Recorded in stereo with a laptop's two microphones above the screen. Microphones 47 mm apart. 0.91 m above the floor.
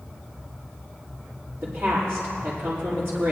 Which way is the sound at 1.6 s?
35° right (ahead or behind).